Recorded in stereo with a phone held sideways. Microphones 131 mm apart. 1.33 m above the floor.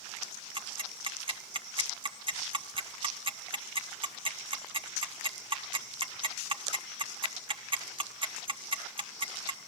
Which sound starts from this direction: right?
Ticking, at 0.6 s.